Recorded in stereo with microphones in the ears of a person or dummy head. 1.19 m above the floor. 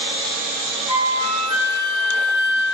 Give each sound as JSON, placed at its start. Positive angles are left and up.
{"t": 0.9, "sound": "a flute", "side_deg": -25, "distance_m": 0.6}